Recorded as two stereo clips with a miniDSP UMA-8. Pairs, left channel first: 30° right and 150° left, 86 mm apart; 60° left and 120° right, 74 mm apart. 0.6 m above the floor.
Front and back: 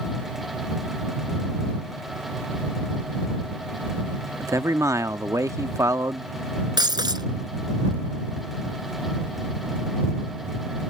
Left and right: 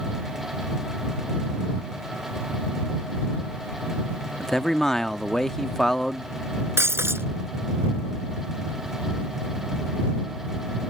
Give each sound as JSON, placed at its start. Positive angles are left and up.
{"t": 4.4, "sound": "a man speaking", "azimuth_deg": 140}
{"t": 6.8, "sound": "breaking glass", "azimuth_deg": -175}